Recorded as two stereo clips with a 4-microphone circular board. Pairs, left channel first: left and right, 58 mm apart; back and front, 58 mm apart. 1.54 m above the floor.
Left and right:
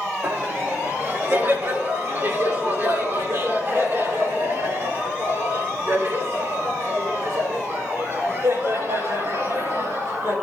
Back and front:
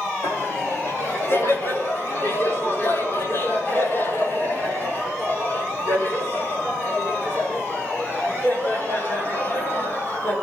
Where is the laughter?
140° right, 5 m; by 10.3 s 125° right, 9.5 m.